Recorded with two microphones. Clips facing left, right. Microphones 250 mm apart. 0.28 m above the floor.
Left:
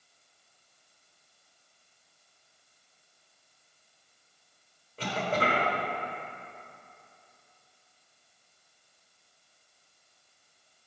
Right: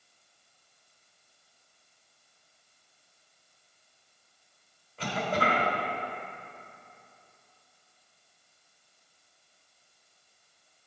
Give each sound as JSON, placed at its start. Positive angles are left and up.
{"t": 5.0, "sound": "a cough", "side_deg": 35, "distance_m": 1.4}